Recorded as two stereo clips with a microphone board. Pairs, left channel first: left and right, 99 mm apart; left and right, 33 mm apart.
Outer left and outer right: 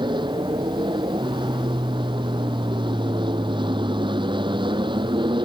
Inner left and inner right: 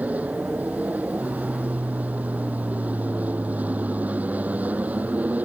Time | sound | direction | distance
0.0 | an aircraft | 50° right (ahead or behind) | ?